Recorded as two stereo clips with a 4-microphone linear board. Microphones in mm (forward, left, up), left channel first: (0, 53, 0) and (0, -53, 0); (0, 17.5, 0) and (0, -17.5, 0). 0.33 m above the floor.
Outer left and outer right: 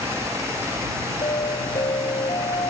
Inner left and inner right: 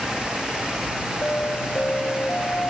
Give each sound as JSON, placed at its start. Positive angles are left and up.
{"t": 1.2, "sound": "an alarm", "side_deg": 60}